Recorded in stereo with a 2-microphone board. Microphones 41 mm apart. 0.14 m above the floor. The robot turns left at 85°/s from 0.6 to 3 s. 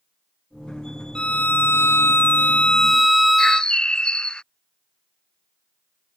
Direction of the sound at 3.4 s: 20° left (ahead or behind).